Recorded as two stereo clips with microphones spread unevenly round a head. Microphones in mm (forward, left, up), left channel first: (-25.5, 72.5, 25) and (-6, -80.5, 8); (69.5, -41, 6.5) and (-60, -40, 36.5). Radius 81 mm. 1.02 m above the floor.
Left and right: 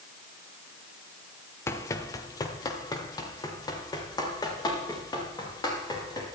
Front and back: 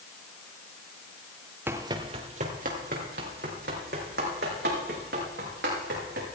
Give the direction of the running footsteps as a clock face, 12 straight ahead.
7 o'clock.